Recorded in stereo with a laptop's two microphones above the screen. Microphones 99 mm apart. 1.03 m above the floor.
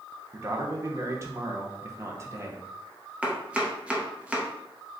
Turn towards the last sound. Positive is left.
turn(degrees=-10)  # may be behind; listen again after turning